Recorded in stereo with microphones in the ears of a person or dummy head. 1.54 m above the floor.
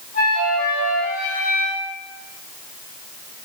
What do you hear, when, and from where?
0.1 s a flute: 40° left (ahead or behind), 1.3 m